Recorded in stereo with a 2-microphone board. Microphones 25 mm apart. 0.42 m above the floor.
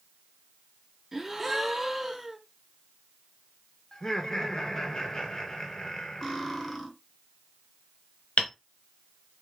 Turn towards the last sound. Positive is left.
turn(degrees=70)  # may be behind; listen again after turning